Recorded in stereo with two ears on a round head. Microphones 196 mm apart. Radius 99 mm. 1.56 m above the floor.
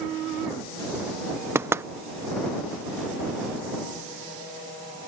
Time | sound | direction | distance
1.6 | knocking | 10° right (ahead or behind) | ?